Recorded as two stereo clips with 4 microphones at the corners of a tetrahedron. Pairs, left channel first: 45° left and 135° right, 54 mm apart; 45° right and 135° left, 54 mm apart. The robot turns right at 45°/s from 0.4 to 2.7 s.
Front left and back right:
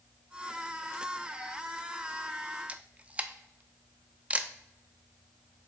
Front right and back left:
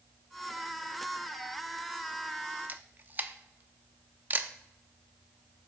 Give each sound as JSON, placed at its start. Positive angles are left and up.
{"t": 2.7, "sound": "a camera shutter", "azimuth_deg": 170, "distance_m": 0.5}